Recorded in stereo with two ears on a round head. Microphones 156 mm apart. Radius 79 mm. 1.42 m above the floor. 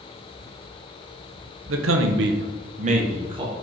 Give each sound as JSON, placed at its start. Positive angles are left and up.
{"t": 1.7, "sound": "a man speaking", "side_deg": -75, "distance_m": 0.6}